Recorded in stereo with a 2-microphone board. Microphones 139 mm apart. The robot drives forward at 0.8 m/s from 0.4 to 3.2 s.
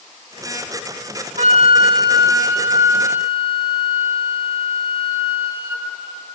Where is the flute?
55° right (ahead or behind), 0.7 m; by 5.9 s 15° right (ahead or behind), 1.9 m.